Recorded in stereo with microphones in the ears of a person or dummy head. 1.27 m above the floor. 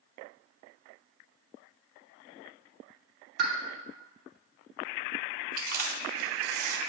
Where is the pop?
60° right (ahead or behind), 1.6 m.